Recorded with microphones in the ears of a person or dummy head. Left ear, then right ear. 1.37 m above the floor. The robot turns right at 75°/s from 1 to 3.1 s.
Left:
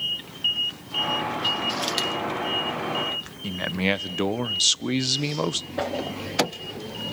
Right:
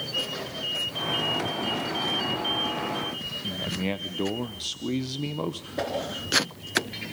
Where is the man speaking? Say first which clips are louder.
Left 7 dB; 60° left (ahead or behind), 0.7 m.